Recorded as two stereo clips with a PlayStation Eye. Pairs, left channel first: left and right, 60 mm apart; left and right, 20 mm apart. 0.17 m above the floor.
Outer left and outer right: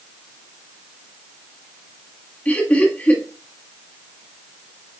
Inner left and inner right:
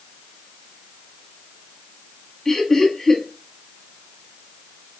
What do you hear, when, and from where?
2.5 s laughter: 25° left (ahead or behind), 1.5 m